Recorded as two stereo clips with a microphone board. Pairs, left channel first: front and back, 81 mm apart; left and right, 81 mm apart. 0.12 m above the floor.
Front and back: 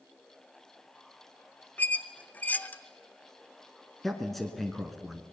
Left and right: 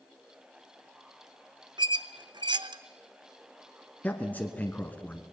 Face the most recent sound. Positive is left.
turn(degrees=80)